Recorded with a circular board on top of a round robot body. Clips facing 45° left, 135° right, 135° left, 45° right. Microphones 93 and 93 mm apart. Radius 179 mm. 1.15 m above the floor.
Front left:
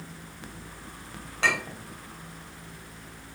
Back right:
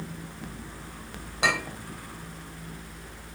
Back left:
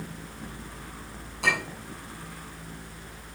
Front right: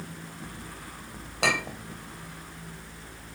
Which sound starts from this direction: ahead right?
A clink, at 1.4 s.